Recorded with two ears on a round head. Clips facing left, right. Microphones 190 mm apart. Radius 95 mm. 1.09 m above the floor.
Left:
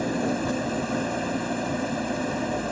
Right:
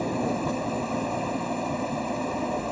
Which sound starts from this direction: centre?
An engine running, at 0.0 s.